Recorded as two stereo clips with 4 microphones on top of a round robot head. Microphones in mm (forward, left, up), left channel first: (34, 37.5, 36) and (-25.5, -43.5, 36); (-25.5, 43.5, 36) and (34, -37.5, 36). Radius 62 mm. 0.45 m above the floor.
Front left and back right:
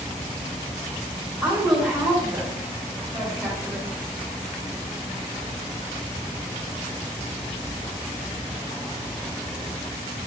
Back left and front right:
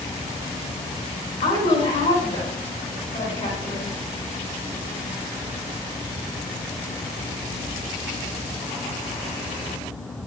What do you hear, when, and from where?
1.4 s a woman speaking: 145° left, 5 m